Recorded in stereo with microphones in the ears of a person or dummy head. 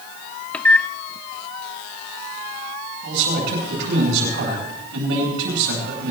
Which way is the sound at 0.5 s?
5° left (ahead or behind).